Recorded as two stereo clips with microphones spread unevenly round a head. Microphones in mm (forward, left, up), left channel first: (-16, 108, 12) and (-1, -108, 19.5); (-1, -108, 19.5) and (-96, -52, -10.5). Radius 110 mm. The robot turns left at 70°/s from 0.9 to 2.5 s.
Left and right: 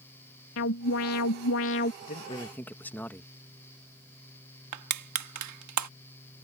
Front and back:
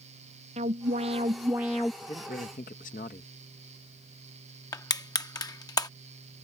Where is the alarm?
120° left; by 1.9 s 45° left.